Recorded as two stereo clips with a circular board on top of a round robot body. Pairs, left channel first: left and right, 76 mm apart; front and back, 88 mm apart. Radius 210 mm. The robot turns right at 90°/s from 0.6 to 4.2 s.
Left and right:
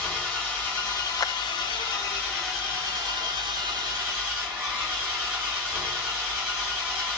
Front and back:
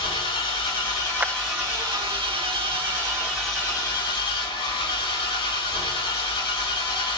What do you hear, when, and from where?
0.0 s an engine running: 15° left, 6.5 m; by 7.2 s 20° right, 6.5 m
1.2 s a clap: 105° left, 0.6 m; by 1.3 s 120° left, 0.6 m